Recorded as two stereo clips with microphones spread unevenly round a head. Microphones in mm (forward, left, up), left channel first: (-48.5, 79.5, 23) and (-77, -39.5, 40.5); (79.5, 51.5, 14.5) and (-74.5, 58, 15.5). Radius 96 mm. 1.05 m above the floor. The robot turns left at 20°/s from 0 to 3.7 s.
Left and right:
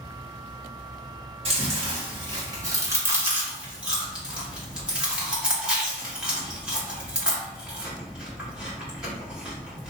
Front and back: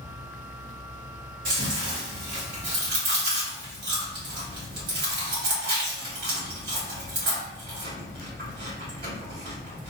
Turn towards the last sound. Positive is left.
turn(degrees=170)